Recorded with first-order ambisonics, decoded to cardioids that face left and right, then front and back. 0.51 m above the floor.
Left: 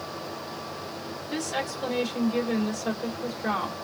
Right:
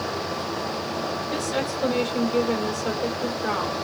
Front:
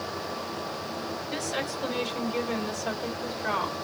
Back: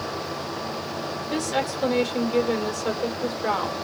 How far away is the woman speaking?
About 1.6 m.